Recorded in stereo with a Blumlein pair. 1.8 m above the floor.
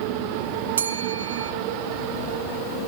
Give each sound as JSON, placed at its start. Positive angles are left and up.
{"t": 0.8, "sound": "a bell", "azimuth_deg": -65, "distance_m": 1.4}